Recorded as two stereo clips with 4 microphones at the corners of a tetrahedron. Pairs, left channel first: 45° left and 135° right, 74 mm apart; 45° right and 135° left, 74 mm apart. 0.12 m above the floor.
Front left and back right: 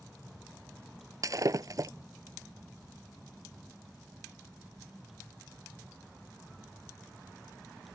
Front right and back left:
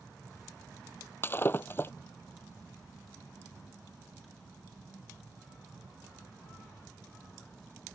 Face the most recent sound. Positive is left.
turn(degrees=-100)